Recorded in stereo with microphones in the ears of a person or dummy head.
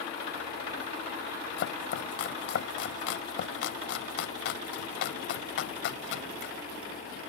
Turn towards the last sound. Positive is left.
turn(degrees=60)  # may be behind; listen again after turning